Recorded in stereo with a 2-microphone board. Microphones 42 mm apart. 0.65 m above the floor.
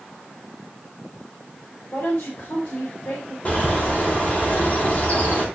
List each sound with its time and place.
1.9 s a woman speaking: 75° left (ahead or behind), 3 m
3.5 s a bird: 35° left (ahead or behind), 4 m